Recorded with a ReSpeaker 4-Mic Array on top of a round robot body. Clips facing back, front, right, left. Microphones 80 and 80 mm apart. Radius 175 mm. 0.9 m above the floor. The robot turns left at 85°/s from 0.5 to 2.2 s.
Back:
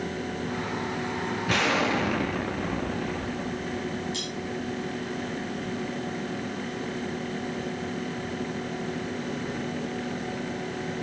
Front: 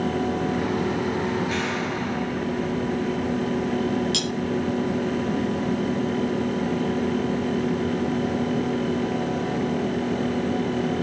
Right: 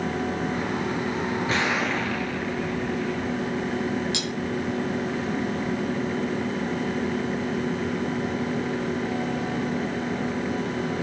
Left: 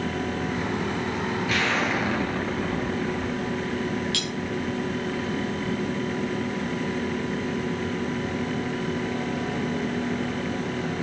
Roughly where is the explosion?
Behind right.